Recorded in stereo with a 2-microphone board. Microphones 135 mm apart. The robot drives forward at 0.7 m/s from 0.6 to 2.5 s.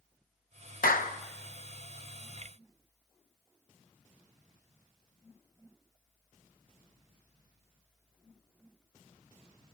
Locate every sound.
0.8 s a clap: 85° left, 1.2 m; by 1.2 s 75° left (ahead or behind), 1.2 m